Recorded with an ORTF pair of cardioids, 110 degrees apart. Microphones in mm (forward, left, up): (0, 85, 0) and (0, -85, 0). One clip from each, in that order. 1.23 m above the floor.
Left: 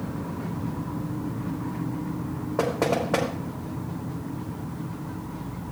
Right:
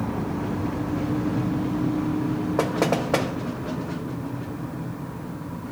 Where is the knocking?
20° right, 2.5 m.